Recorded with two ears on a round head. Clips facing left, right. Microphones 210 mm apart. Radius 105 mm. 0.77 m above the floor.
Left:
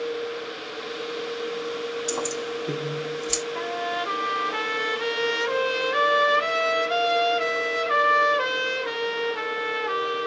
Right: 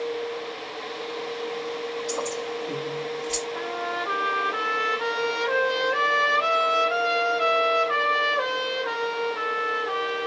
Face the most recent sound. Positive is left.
turn(degrees=35)  # may be behind; listen again after turning